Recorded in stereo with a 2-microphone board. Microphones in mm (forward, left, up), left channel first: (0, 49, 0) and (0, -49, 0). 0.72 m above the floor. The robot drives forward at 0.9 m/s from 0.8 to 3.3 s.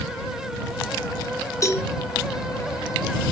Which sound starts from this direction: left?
A cowbell, at 1.6 s.